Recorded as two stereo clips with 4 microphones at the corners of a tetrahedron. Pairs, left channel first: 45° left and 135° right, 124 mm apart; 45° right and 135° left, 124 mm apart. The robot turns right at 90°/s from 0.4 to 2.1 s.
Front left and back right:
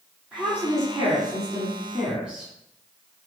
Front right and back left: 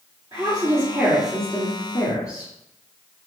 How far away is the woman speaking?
About 1.7 m.